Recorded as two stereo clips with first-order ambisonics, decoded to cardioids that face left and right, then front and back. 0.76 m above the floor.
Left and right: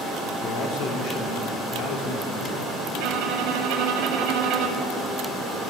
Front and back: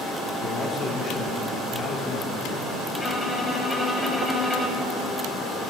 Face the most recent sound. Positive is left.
turn(degrees=-85)